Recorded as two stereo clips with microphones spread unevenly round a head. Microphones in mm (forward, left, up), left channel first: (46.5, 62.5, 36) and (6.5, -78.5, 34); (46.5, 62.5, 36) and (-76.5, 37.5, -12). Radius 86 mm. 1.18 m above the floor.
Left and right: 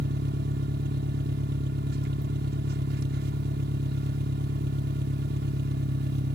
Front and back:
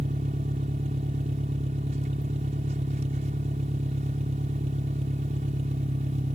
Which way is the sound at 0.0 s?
120° right.